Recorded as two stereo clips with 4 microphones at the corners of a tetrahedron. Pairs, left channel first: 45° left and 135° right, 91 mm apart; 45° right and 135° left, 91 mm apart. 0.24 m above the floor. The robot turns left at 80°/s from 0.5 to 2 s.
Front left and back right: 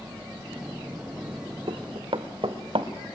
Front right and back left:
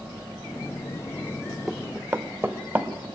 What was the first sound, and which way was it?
Running footsteps, 130° right.